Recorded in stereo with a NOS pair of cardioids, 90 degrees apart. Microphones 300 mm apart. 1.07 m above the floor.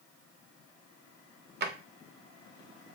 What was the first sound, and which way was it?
A drawer, 35° right.